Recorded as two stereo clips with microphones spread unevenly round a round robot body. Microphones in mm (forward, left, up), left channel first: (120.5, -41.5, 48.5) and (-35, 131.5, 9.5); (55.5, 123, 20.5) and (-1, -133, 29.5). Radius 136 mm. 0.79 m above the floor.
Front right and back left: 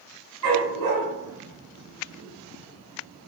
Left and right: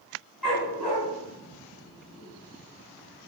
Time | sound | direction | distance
0.4 | a dog barking | 165° left | 2.5 m